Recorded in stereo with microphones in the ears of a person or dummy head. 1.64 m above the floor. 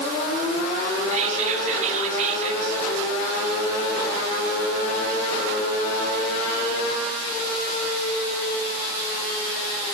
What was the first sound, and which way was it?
Whispering, 45° right (ahead or behind).